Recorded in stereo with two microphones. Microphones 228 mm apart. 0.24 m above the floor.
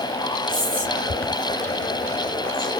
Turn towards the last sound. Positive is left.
turn(degrees=-55)  # may be behind; listen again after turning